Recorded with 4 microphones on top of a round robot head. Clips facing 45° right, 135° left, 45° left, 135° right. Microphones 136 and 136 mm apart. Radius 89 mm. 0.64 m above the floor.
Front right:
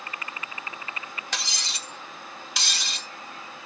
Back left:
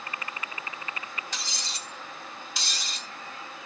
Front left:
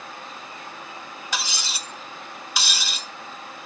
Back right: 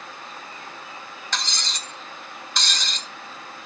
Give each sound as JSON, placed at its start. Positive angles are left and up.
{"t": 1.3, "sound": "cutlery clinking", "azimuth_deg": -35, "distance_m": 0.8}